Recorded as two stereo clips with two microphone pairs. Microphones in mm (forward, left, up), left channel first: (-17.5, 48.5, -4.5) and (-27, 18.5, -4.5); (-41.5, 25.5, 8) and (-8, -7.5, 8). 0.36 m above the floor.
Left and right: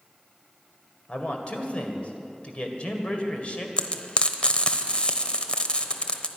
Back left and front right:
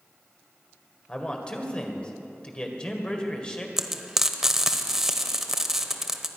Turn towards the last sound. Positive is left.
turn(degrees=35)